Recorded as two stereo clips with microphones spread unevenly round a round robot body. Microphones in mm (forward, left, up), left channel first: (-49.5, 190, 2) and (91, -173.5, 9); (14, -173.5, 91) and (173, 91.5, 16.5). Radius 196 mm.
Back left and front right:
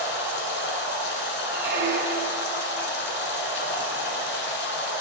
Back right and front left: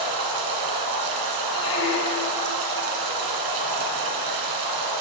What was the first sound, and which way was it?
Running water, 50° left.